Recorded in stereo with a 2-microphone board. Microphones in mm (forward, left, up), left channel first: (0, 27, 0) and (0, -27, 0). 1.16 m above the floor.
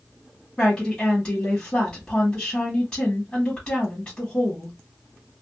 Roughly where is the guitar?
I don't hear a guitar.